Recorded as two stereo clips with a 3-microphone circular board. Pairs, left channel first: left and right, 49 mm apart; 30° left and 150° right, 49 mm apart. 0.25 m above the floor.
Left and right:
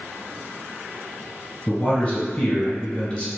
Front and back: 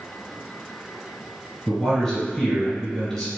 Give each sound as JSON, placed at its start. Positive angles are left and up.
{"t": 1.7, "sound": "a man speaking", "azimuth_deg": 95, "distance_m": 1.7}